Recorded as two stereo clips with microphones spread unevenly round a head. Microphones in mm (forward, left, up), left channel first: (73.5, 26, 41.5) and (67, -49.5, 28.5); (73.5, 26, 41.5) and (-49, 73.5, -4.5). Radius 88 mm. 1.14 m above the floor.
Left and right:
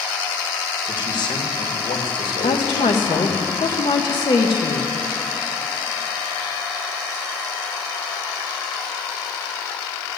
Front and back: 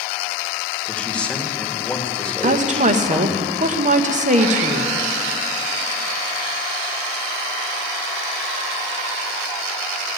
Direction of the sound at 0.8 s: 60° left.